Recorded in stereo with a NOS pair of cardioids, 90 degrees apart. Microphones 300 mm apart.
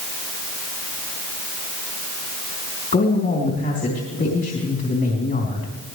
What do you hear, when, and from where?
2.9 s a man speaking: 35° left, 3.5 m